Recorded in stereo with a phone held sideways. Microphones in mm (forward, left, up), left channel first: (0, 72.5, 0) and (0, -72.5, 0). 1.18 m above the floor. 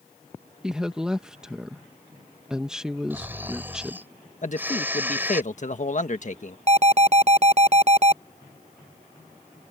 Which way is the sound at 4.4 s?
55° left (ahead or behind).